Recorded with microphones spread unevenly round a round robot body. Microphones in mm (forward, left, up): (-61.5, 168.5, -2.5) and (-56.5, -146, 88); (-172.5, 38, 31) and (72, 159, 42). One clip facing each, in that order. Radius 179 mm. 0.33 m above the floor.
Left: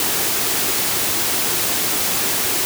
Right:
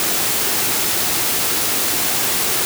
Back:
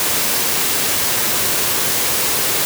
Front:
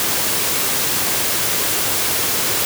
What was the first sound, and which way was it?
Only background noise.